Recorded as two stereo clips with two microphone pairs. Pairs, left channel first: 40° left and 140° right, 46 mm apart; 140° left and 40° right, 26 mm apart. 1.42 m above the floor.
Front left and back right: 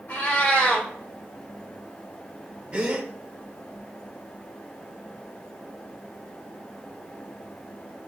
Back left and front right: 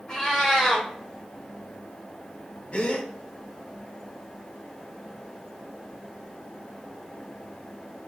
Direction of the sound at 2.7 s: 160° left.